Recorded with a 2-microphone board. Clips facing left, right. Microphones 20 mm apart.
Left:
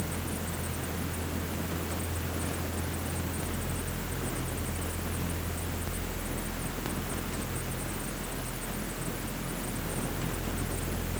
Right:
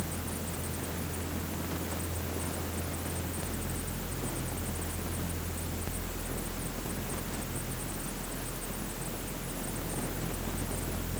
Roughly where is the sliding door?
No sliding door in this recording.